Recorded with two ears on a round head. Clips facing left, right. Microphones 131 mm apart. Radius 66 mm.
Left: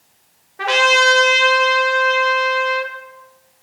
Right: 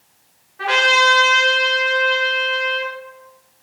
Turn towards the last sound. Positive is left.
turn(degrees=55)  # may be behind; listen again after turning